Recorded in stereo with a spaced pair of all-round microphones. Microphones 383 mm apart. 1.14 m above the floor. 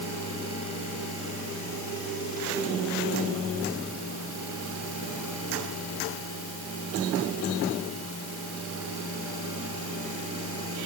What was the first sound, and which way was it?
Only background noise.